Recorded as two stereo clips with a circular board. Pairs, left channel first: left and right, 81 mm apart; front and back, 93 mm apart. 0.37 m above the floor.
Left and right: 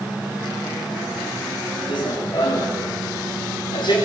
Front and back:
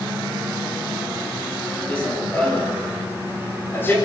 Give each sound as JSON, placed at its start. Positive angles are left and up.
{"t": 1.9, "sound": "running footsteps", "azimuth_deg": 80, "distance_m": 9.5}